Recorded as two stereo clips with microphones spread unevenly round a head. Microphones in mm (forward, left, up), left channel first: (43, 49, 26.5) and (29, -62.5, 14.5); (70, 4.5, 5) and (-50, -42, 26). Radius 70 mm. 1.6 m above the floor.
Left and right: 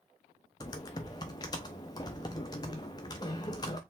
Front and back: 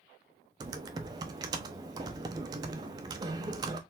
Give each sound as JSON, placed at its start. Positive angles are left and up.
{"t": 0.6, "sound": "typing on a keyboard", "azimuth_deg": 145, "distance_m": 0.6}